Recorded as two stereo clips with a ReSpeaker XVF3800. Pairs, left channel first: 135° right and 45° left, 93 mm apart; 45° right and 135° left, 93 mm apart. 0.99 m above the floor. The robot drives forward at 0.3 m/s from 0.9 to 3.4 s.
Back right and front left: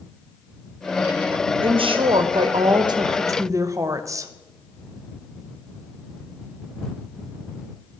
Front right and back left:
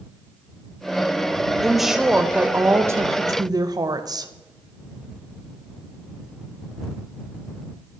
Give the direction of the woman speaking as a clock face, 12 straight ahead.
11 o'clock.